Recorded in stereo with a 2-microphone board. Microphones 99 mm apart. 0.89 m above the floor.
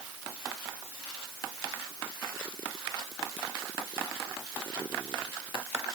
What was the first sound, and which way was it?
Only background noise.